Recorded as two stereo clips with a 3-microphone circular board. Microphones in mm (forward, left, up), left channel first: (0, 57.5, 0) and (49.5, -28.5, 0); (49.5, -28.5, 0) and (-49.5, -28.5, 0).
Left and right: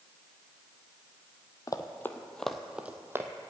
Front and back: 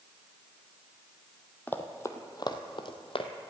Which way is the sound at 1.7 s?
70° left.